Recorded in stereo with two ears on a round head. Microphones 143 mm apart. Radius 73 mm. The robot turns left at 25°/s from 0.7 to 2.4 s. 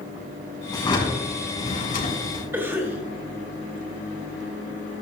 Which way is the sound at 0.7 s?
155° left.